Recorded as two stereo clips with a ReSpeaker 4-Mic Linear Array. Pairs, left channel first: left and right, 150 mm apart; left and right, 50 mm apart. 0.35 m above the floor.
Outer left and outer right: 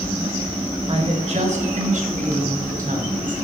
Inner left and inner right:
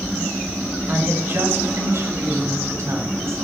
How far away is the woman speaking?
About 1.4 m.